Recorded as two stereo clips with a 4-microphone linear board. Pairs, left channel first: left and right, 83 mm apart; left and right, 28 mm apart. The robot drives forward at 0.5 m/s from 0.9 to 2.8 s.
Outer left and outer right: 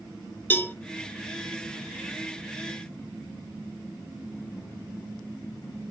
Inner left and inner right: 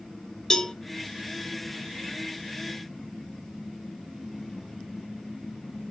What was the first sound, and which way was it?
A cowbell, 25° left (ahead or behind).